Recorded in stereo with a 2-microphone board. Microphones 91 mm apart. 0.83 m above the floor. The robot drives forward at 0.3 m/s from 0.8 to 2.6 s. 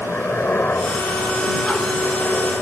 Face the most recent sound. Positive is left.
turn(degrees=20)  # may be behind; listen again after turning